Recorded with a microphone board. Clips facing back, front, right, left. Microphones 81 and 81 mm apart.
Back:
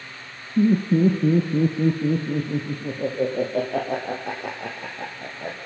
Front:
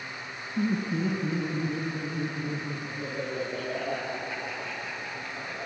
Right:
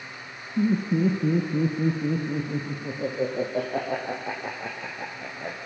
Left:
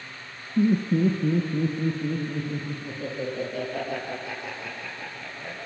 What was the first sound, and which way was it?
Laughter, 160° left.